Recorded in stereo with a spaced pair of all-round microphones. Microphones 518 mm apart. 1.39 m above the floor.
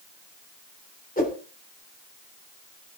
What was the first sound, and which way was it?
A whoosh, 15° left (ahead or behind).